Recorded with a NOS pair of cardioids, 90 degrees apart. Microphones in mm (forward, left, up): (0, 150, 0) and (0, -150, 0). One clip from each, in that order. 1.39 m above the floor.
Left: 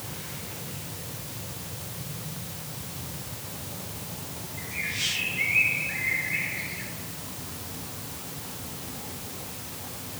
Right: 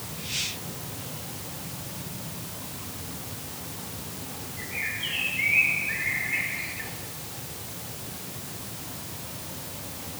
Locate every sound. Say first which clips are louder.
4.6 s a bird: left 1 dB; 35° right, 7 m